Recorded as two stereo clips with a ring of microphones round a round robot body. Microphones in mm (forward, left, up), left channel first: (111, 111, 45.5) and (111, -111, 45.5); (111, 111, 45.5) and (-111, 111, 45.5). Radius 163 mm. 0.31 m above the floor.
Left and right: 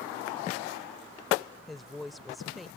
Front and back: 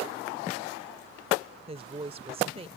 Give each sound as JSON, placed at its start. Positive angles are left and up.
{"t": 1.7, "sound": "a woman speaking", "azimuth_deg": 180}